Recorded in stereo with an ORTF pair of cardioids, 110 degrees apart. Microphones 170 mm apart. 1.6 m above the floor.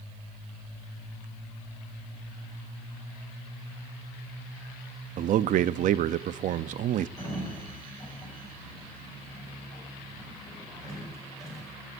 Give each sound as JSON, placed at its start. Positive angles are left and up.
{"t": 5.2, "sound": "a man speaking", "azimuth_deg": -55, "distance_m": 0.7}
{"t": 7.2, "sound": "a sliding door", "azimuth_deg": 20, "distance_m": 6.0}